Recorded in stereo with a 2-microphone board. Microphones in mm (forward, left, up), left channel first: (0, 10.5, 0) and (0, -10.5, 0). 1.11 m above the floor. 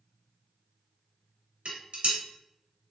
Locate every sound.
1.6 s dishes clattering: 60° right (ahead or behind), 0.9 m